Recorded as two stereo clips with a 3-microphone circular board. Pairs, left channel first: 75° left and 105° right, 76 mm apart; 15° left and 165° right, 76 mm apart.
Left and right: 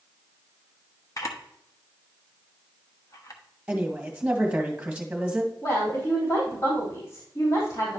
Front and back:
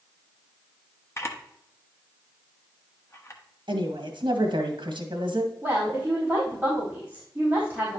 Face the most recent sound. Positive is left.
turn(degrees=120)